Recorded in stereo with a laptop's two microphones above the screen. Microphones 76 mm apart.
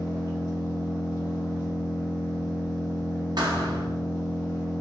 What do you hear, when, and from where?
0.0 s an engine running: 35° left (ahead or behind), 1.4 m
3.4 s a thud: 65° right (ahead or behind), 1.0 m